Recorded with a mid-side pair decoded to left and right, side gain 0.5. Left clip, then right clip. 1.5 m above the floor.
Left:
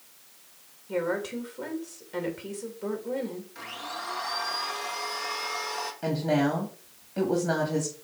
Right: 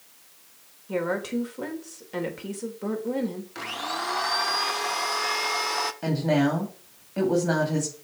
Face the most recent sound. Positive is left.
turn(degrees=-15)